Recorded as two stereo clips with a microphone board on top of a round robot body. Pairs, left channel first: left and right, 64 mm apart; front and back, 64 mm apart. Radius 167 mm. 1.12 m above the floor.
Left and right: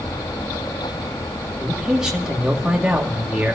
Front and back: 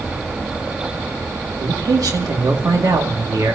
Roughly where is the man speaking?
Behind.